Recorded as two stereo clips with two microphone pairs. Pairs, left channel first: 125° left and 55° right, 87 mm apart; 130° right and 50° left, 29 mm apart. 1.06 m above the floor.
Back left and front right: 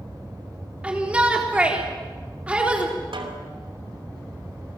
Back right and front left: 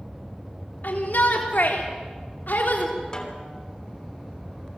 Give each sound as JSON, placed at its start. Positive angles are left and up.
{"t": 0.8, "sound": "a shout", "azimuth_deg": -130, "distance_m": 3.5}
{"t": 3.1, "sound": "a snare drum", "azimuth_deg": -65, "distance_m": 3.0}